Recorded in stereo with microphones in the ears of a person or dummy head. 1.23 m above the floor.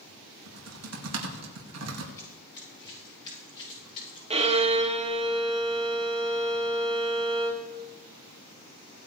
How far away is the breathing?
I don't hear breathing.